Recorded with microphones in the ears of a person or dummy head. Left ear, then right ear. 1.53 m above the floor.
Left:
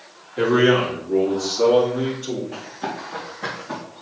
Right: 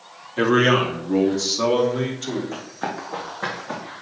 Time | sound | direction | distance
0.4 | a man speaking | 40° right (ahead or behind) | 2.5 m
2.5 | running footsteps | 45° right (ahead or behind) | 3.5 m